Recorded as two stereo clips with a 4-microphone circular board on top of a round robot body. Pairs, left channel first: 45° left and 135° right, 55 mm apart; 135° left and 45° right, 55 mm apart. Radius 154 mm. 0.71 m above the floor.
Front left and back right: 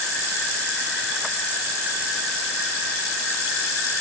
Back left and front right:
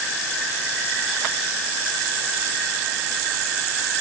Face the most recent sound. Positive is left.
No sound to turn to.